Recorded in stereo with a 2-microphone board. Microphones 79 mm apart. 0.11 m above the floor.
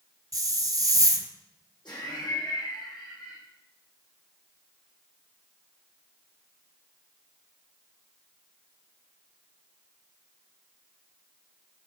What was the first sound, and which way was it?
A hiss, 50° right (ahead or behind).